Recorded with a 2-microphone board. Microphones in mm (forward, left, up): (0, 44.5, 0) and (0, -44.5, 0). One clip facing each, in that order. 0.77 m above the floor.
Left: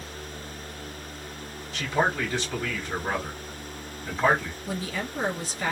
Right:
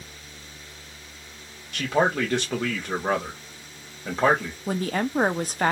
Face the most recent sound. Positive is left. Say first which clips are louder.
# right 7 dB
turn(degrees=-55)  # may be behind; listen again after turning